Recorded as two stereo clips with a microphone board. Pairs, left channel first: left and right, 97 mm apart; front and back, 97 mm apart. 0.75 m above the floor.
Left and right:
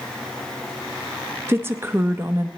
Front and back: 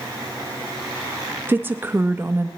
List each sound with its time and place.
1.5 s a woman speaking: 130° right, 0.6 m